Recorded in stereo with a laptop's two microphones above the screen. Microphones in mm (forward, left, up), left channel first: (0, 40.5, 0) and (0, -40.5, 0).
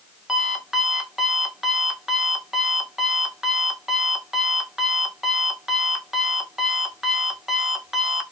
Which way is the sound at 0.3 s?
5° right (ahead or behind).